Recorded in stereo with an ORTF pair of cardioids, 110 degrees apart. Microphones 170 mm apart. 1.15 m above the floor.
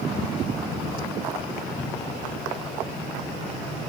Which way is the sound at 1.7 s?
40° left.